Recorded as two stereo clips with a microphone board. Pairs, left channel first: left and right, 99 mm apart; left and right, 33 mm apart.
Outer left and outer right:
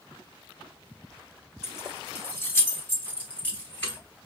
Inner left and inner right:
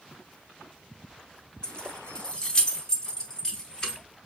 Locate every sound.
1.6 s keys jangling: 25° left (ahead or behind), 0.7 m; by 4.0 s 15° left (ahead or behind), 2.5 m